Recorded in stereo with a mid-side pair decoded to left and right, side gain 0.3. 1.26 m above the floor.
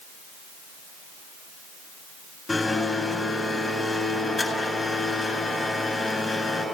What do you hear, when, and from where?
2.5 s a blender: 30° left, 8 m